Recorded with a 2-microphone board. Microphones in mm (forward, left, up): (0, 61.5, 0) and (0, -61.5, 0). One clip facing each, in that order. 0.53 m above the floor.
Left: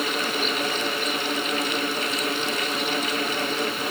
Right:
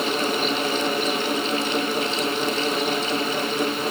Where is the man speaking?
No man speaking in this recording.